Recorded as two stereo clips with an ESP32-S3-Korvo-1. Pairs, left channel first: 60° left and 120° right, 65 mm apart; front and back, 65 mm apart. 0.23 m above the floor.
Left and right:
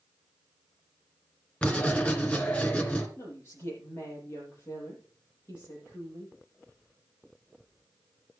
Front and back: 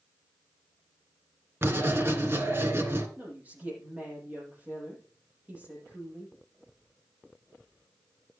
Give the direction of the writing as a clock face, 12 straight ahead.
8 o'clock.